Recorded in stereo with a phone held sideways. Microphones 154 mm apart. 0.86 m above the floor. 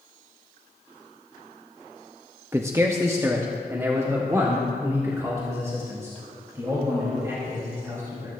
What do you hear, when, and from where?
2.5 s a man speaking: 15° right (ahead or behind), 0.7 m; by 8.3 s 20° right (ahead or behind), 4.5 m